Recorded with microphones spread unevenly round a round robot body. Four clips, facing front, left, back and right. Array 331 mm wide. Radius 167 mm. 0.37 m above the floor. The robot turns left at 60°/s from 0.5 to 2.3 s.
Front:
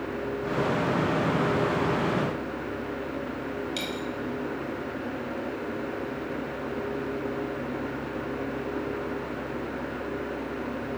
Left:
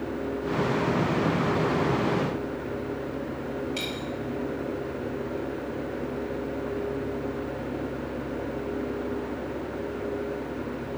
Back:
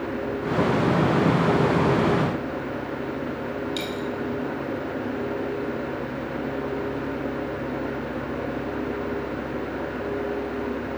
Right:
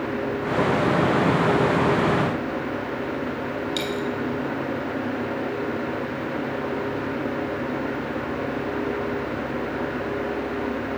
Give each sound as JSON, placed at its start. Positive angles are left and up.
{"t": 3.8, "sound": "a dropped coin", "azimuth_deg": -60, "distance_m": 1.3}